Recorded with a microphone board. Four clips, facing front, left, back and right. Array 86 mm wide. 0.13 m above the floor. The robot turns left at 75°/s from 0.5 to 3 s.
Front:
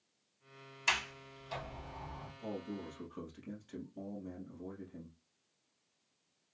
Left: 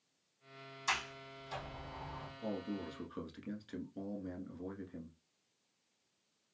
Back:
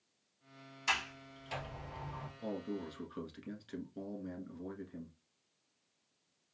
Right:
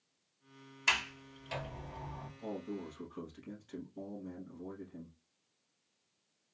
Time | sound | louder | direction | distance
0.9 | a sliding door | right 2 dB, even | 70° right | 1.7 m
2.4 | a man speaking | left 1 dB, back 2 dB | 175° left | 1.3 m